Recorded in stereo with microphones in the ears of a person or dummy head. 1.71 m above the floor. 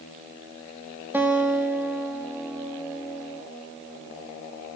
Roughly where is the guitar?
Centre.